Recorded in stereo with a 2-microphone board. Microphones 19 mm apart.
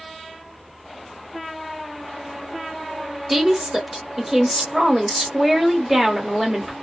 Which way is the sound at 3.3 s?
15° right (ahead or behind).